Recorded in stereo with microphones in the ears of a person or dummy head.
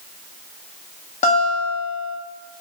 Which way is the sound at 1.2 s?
40° left (ahead or behind).